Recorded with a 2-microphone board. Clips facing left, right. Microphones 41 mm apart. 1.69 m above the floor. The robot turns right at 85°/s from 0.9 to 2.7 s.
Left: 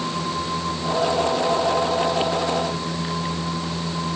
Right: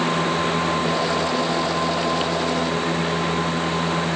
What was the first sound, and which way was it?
Only background noise.